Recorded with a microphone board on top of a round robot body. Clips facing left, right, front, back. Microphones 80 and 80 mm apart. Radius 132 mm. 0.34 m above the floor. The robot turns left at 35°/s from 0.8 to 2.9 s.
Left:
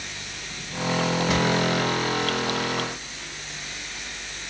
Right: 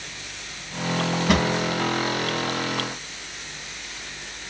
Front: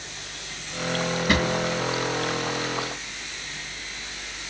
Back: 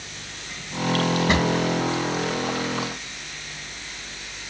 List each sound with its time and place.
1.3 s a drawer: 110° right, 2.5 m; by 1.5 s 120° right, 2.5 m